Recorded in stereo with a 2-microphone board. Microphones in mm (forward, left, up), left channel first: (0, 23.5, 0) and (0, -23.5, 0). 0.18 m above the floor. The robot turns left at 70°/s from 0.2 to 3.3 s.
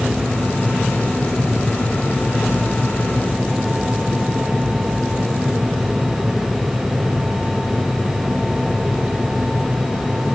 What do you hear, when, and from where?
Only background noise.